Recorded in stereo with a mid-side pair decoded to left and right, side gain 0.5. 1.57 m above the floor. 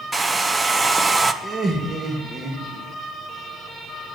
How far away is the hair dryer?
About 1.0 m.